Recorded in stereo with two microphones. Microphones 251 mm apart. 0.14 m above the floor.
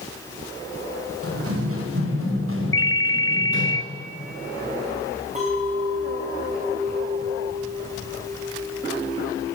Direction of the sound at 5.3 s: 30° right (ahead or behind).